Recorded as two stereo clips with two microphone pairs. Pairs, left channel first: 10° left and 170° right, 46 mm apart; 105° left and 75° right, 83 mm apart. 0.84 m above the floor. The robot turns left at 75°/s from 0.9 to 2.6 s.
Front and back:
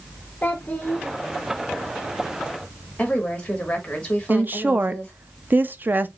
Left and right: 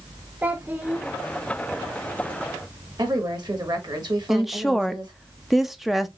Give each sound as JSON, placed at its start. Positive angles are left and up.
{"t": 0.4, "sound": "a child speaking", "azimuth_deg": -15, "distance_m": 0.6}
{"t": 3.0, "sound": "a woman speaking", "azimuth_deg": -55, "distance_m": 1.9}
{"t": 4.3, "sound": "a woman speaking", "azimuth_deg": -165, "distance_m": 0.6}